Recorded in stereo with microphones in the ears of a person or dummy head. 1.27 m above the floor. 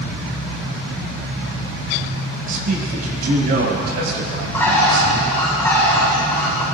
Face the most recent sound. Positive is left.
turn(degrees=5)  # may be behind; listen again after turning